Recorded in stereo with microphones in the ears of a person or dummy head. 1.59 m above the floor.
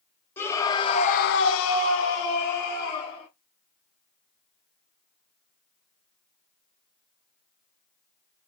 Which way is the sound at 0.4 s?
10° left (ahead or behind).